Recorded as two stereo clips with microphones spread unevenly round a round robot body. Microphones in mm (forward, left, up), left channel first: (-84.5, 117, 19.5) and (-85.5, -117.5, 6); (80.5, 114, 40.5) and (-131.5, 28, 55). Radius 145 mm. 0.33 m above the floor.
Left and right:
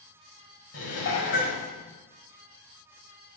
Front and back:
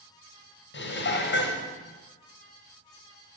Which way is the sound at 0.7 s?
50° left.